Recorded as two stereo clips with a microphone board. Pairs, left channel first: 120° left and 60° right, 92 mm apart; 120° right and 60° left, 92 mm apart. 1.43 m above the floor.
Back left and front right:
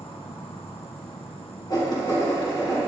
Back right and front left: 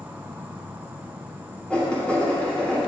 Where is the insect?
130° left, 0.8 m.